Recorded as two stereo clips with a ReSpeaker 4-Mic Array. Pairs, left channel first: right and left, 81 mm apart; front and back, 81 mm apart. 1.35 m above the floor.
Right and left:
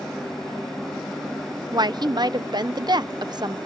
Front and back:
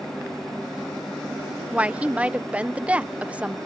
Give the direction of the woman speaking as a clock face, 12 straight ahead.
8 o'clock.